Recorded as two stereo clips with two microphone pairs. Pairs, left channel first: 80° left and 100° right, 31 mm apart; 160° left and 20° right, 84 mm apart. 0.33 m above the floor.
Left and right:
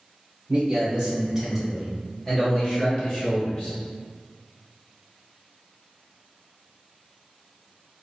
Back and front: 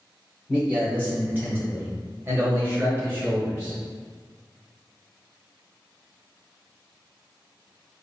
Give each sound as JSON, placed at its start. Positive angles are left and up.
{"t": 0.5, "sound": "a man speaking", "azimuth_deg": -90, "distance_m": 1.3}